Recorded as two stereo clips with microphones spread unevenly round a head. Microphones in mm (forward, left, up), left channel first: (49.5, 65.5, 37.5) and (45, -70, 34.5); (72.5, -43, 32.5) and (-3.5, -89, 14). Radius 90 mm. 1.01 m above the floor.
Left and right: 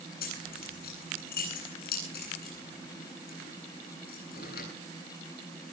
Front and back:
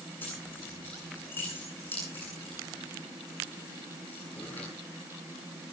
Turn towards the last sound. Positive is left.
turn(degrees=110)